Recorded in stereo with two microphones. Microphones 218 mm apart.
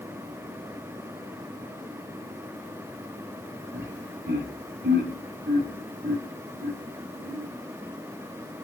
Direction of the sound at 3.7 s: 55° right (ahead or behind).